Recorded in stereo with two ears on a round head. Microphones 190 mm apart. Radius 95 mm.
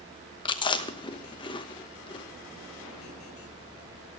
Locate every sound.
0.5 s chewing: 25° left (ahead or behind), 0.9 m